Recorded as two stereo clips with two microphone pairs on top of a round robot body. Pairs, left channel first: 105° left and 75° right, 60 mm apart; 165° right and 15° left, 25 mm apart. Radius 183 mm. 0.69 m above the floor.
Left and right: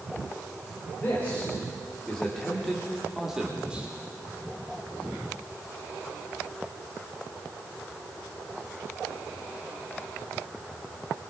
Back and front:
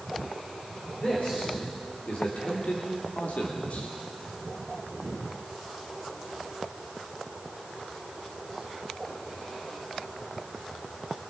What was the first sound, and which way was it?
A man speaking, 165° left.